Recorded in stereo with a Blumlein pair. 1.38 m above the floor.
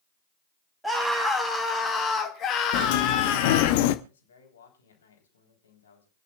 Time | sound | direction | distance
0.8 | a scream | straight ahead | 2 m
2.7 | a sliding door | 50° left | 0.9 m
4.0 | a man speaking | 70° left | 3.5 m